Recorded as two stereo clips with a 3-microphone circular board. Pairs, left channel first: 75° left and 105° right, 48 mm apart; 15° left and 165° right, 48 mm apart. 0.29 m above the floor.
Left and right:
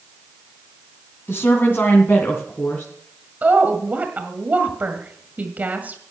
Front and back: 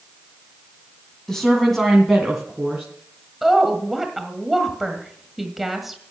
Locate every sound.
1.3 s a woman speaking: 95° left, 1.8 m; by 2.9 s 115° left, 2.5 m
3.4 s a woman speaking: 80° right, 1.7 m